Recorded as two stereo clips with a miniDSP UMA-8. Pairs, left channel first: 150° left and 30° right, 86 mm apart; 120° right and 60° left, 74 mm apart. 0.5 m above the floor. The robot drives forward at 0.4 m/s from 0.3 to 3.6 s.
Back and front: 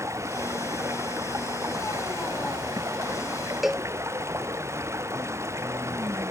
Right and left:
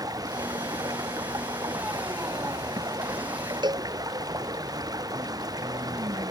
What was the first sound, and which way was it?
Running water, 25° left.